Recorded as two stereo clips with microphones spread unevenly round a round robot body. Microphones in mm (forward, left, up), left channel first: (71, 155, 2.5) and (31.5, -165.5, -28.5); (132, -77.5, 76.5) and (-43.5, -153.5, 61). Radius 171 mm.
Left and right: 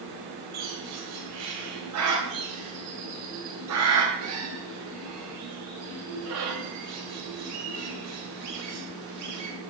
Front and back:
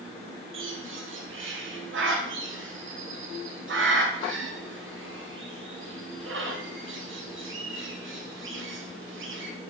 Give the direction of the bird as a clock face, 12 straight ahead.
5 o'clock.